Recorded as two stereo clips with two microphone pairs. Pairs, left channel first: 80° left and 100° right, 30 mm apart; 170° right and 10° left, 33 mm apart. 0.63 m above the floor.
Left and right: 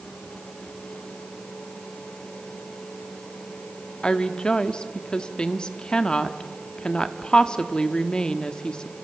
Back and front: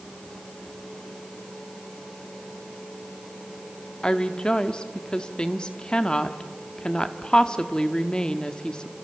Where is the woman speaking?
135° left, 1.3 m.